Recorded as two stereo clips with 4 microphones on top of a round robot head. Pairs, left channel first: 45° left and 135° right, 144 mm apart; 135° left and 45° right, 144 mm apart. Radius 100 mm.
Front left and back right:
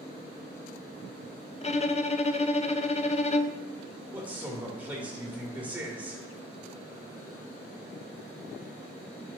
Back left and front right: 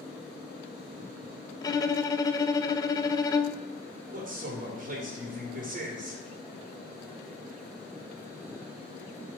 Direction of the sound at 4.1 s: 55° right.